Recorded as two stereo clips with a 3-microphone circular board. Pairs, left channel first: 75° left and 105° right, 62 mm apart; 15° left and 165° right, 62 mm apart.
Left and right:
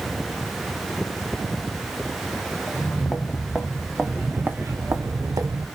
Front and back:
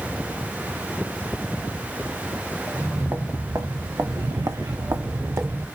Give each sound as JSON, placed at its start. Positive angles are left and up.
{"t": 2.7, "sound": "footsteps", "azimuth_deg": 145, "distance_m": 1.3}